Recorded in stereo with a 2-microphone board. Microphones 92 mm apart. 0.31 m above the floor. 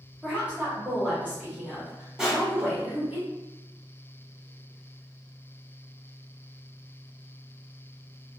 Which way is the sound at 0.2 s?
20° right (ahead or behind).